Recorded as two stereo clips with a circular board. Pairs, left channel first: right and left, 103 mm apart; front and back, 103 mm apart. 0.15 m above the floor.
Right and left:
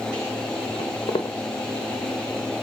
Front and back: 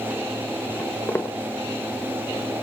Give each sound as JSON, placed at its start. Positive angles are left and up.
{"t": 0.8, "sound": "footsteps", "azimuth_deg": -70, "distance_m": 1.0}